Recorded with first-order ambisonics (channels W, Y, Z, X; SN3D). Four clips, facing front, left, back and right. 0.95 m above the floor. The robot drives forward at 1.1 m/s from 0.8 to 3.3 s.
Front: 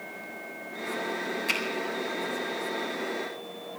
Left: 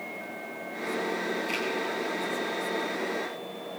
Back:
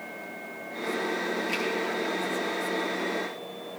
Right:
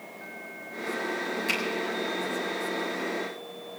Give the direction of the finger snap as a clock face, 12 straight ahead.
2 o'clock.